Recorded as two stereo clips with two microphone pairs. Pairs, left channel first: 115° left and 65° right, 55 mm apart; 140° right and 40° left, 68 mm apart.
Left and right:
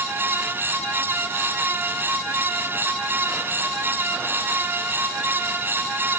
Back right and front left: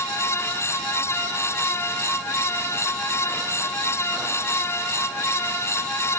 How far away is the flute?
I don't hear a flute.